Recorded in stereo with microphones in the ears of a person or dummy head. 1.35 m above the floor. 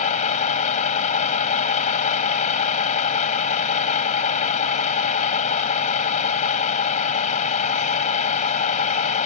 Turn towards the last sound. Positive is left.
turn(degrees=40)  # may be behind; listen again after turning